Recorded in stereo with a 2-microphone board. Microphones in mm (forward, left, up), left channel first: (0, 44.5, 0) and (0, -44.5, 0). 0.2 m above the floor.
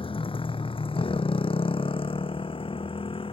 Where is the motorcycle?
80° left; by 3.3 s 85° left.